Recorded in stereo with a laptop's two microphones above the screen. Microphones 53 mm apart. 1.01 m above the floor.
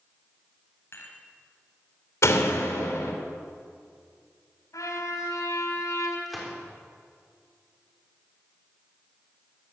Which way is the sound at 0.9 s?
50° left (ahead or behind).